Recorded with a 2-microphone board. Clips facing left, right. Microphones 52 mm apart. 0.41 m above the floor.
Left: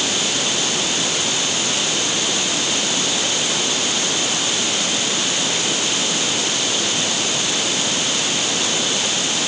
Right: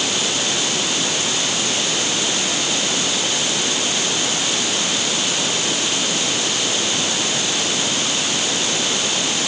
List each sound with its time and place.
Only background noise.